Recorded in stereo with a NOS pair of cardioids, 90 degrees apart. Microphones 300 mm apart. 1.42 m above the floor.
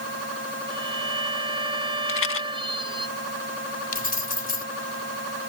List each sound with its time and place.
0.7 s a violin: 15° right
2.1 s a rattle: 45° left
3.9 s keys jangling: 30° left